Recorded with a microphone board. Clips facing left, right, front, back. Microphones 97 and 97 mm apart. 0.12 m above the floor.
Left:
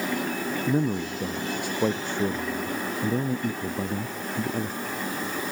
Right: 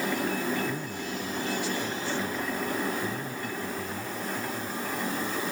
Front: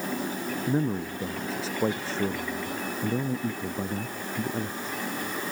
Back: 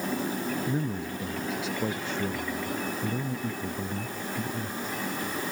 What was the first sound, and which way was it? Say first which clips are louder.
A man speaking: left 8 dB, front 3 dB; 55° left.